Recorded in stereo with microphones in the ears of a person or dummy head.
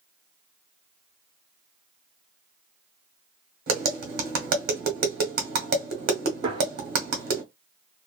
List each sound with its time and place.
3.7 s tapping: 50° right (ahead or behind), 0.9 m
6.4 s a gunshot: 25° right (ahead or behind), 0.9 m